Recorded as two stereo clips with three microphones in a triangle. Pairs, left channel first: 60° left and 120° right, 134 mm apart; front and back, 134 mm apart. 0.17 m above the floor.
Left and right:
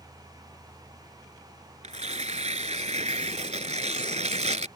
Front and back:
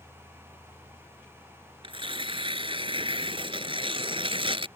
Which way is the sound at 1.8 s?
140° right.